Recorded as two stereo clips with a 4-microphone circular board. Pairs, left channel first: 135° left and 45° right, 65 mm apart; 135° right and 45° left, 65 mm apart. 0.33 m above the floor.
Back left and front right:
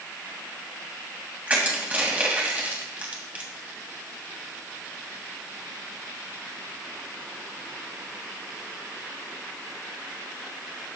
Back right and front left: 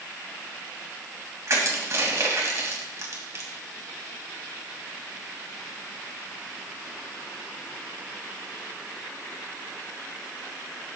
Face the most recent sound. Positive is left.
turn(degrees=15)